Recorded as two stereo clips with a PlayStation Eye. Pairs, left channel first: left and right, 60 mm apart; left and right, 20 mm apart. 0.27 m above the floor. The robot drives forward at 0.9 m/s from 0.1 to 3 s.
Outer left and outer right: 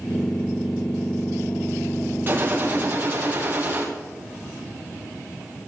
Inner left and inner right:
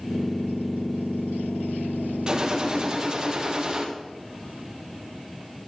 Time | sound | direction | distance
2.3 | a gunshot | 40° right (ahead or behind) | 3.5 m